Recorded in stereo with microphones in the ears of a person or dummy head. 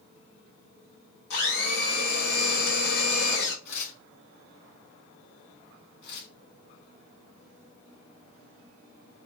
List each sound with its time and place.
1.3 s a blender: 55° left (ahead or behind), 1.4 m
3.6 s tearing paper: 85° left, 2.5 m
6.0 s tearing paper: 70° left (ahead or behind), 1.6 m